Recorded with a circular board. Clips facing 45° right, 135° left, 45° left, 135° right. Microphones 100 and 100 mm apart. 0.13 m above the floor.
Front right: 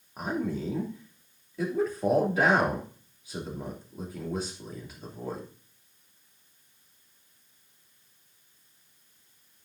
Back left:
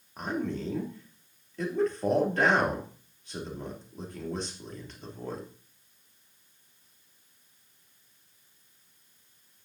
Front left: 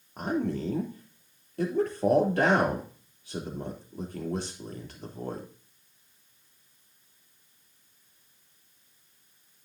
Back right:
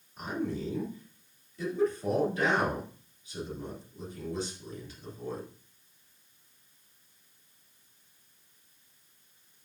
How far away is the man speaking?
About 3 m.